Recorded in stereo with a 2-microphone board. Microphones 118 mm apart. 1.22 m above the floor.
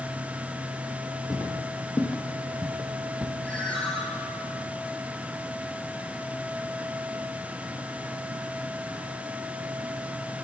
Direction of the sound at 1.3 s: 30° left (ahead or behind).